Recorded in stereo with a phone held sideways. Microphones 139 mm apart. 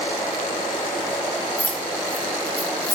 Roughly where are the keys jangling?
Left.